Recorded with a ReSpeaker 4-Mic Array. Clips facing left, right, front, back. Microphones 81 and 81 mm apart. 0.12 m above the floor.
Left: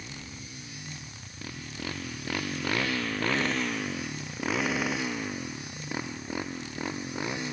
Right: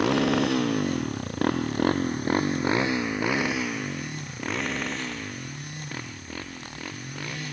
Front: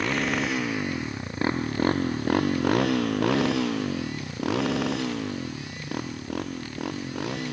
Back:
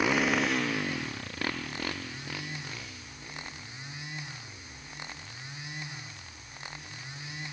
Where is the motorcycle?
100° right; by 7.5 s 20° left.